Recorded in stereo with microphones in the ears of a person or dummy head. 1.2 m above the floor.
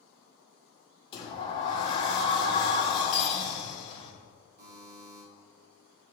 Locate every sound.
1.1 s a sliding door: 30° left (ahead or behind), 0.9 m
3.1 s cutlery clinking: 40° left (ahead or behind), 2.0 m
4.6 s a buzzer: 50° right (ahead or behind), 2.0 m